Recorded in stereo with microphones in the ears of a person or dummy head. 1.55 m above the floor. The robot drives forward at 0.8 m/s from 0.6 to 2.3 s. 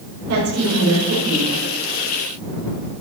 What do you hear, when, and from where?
0.3 s a woman speaking: 70° right (ahead or behind), 6.5 m; by 1.5 s 65° right (ahead or behind), 7 m